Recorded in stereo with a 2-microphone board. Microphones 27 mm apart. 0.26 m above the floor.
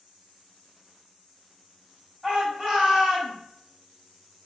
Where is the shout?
35° right (ahead or behind), 2.0 m; by 3.3 s 20° right (ahead or behind), 1.9 m.